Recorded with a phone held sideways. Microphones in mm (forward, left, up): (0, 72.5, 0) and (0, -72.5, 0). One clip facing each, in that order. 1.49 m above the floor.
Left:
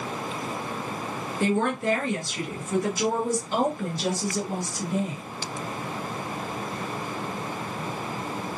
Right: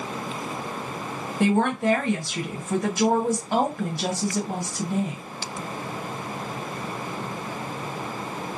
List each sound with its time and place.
1.4 s a woman speaking: 70° right (ahead or behind), 1.4 m